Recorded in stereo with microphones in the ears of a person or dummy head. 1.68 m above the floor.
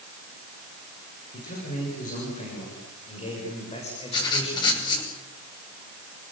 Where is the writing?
25° left (ahead or behind), 6.5 m.